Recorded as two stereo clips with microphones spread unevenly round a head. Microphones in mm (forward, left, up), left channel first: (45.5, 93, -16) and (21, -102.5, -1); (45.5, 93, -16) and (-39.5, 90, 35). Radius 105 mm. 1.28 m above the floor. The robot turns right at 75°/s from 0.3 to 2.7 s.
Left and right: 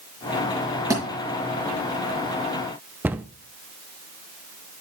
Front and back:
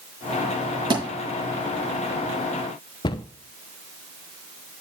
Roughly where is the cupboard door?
Ahead.